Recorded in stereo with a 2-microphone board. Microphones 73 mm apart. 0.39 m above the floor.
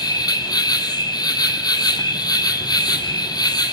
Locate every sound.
0.0 s an insect: 75° left (ahead or behind), 1.6 m